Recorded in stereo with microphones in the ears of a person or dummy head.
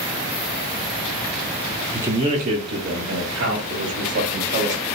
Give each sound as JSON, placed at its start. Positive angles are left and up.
{"t": 1.9, "sound": "a man speaking", "side_deg": -10, "distance_m": 0.5}